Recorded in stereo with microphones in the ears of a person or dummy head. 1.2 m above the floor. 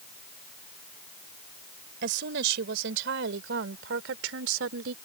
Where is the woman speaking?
70° right (ahead or behind); by 5.0 s 80° right.